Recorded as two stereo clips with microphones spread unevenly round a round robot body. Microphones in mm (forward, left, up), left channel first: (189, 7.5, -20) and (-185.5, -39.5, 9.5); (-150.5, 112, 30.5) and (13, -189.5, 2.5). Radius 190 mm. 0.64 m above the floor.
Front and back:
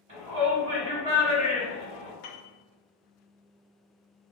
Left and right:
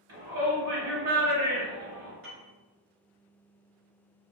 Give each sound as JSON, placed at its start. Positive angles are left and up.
{"t": 0.1, "sound": "a shout", "azimuth_deg": -95, "distance_m": 1.8}
{"t": 2.2, "sound": "a piano", "azimuth_deg": -10, "distance_m": 0.5}